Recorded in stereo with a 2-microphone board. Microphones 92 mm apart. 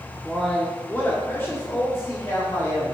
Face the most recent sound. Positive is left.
turn(degrees=30)  # may be behind; listen again after turning